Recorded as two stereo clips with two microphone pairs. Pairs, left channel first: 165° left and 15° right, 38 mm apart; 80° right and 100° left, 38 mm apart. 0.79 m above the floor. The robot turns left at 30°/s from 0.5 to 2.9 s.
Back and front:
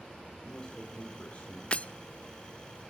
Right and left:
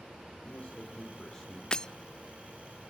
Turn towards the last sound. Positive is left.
turn(degrees=-175)